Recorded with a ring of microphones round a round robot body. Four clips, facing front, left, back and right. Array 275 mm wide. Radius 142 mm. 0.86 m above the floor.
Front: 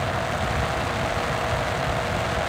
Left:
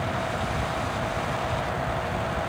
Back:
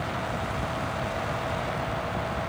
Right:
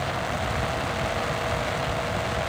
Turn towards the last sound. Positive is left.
No sound to turn to.